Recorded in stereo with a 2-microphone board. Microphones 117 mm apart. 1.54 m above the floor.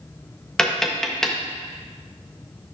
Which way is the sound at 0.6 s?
5° left (ahead or behind).